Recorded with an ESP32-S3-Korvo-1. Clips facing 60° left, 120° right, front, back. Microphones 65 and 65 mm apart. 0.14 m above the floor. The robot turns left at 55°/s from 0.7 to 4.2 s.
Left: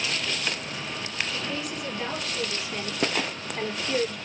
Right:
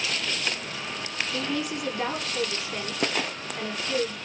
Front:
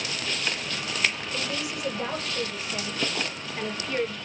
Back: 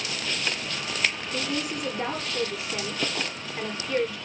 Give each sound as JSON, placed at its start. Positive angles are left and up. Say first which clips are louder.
{"t": 1.3, "sound": "a woman speaking", "louder": "right 3 dB, back 2 dB", "azimuth_deg": -155, "distance_m": 2.5}